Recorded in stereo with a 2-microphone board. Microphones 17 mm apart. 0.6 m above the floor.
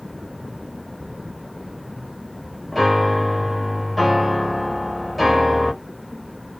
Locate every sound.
2.7 s a piano: 5° left (ahead or behind), 0.9 m